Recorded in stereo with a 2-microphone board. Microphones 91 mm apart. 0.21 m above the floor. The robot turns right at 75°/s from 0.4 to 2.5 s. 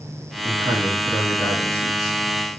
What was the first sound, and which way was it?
A man speaking, 70° right.